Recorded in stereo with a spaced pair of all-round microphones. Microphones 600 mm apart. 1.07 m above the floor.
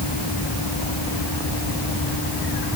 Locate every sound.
Only background noise.